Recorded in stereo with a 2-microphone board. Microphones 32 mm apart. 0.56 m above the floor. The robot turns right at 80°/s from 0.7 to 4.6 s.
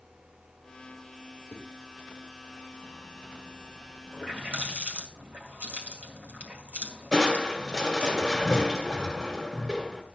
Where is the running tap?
20° right (ahead or behind), 2 m; by 8.1 s 55° right (ahead or behind), 2 m.